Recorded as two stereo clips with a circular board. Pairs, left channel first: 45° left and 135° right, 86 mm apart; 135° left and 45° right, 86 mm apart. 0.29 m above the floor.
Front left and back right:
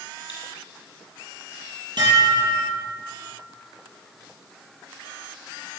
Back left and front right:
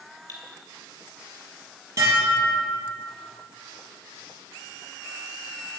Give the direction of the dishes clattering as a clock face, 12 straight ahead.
3 o'clock.